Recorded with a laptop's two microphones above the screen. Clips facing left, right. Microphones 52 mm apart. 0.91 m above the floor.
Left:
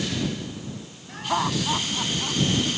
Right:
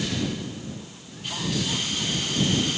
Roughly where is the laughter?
Left.